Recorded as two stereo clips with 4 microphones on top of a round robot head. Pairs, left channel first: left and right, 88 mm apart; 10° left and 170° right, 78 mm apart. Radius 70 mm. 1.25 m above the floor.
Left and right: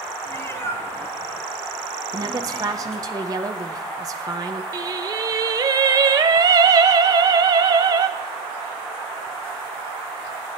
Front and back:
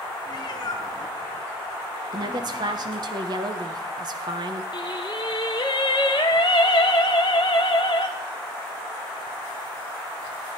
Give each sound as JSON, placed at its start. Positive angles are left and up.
{"t": 0.3, "sound": "a cat meowing", "azimuth_deg": 35, "distance_m": 1.5}
{"t": 2.1, "sound": "a woman speaking", "azimuth_deg": -140, "distance_m": 1.0}
{"t": 4.7, "sound": "singing", "azimuth_deg": -50, "distance_m": 0.6}